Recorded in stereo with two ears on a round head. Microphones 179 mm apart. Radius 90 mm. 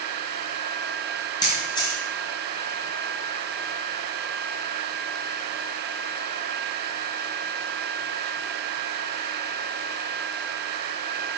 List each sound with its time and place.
1.4 s a camera shutter: 25° left (ahead or behind), 2.5 m